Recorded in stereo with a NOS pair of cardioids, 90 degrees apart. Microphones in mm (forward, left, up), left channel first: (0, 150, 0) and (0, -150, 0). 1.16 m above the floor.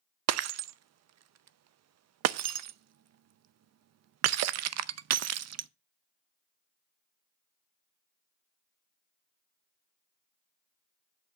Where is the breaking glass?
60° right, 0.6 m.